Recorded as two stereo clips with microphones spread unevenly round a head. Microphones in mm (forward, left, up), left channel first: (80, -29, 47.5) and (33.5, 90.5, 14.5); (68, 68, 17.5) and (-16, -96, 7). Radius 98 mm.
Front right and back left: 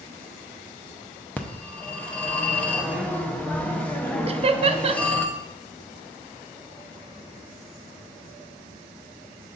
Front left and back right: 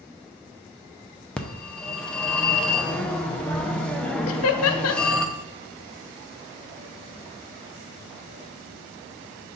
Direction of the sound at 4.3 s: 65° left.